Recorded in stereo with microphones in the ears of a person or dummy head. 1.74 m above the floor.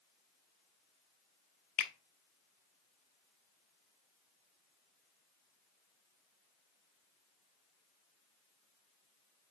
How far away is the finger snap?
About 0.6 m.